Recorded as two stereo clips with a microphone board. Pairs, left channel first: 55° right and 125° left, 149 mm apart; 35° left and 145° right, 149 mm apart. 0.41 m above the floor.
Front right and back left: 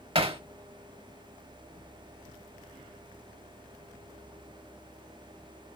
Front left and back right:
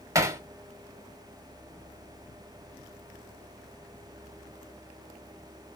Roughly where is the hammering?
Behind left.